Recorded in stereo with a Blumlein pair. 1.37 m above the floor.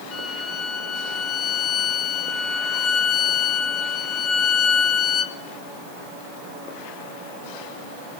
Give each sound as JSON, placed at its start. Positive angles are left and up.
{"t": 0.1, "sound": "a violin", "azimuth_deg": 25, "distance_m": 1.5}